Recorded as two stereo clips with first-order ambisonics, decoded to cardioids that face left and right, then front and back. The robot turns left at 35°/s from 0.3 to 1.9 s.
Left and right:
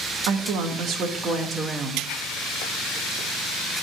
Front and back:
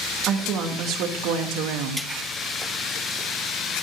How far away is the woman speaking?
About 1.3 m.